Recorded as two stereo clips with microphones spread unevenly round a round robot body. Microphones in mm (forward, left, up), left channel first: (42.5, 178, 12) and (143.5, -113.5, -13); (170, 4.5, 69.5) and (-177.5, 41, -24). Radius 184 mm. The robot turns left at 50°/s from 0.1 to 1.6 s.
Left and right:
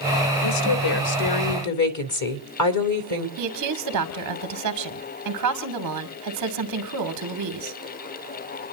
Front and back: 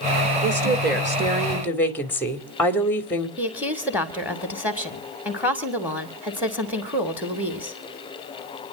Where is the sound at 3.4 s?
105° right, 2.5 m.